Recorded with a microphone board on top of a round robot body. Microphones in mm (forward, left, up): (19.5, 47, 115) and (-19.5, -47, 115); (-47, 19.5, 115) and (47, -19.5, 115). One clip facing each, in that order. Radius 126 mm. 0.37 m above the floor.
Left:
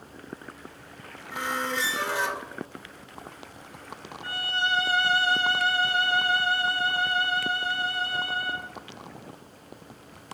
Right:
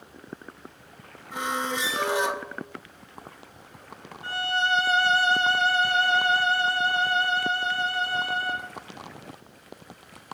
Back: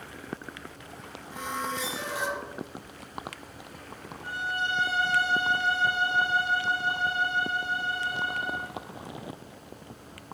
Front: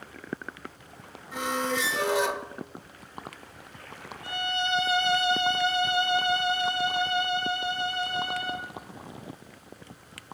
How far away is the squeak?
About 1.0 m.